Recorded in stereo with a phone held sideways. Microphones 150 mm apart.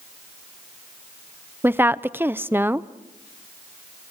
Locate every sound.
1.6 s a woman speaking: 15° right (ahead or behind), 0.6 m